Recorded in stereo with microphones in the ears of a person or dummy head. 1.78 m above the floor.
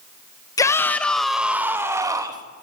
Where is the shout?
25° left (ahead or behind), 2 m; by 2.4 s 20° right (ahead or behind), 3.5 m.